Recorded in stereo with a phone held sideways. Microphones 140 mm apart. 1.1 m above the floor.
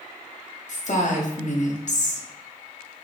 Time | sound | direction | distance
0.7 | a woman speaking | 60° left (ahead or behind) | 0.8 m